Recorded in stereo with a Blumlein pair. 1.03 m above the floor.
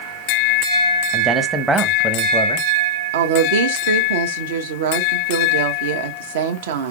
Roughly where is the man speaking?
Ahead.